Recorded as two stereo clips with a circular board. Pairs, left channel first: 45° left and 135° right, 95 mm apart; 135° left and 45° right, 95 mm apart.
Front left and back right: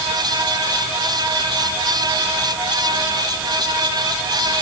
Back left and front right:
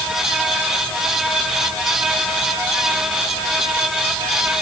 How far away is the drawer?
No drawer in this recording.